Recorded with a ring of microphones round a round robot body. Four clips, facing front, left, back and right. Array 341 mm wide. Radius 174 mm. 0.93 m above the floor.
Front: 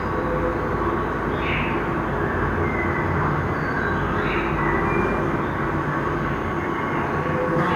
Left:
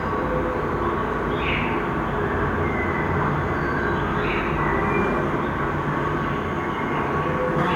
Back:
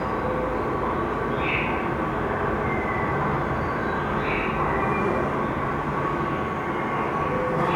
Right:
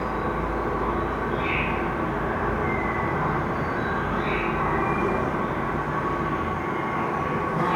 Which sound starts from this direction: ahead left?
An insect, at 0.0 s.